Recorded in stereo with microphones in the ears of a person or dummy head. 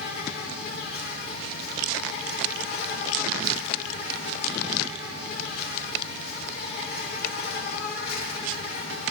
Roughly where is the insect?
Left.